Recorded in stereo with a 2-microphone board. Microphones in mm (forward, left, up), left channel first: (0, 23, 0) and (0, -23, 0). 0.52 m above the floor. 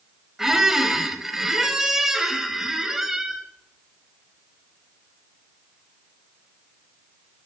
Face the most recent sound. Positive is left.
turn(degrees=-10)  # may be behind; listen again after turning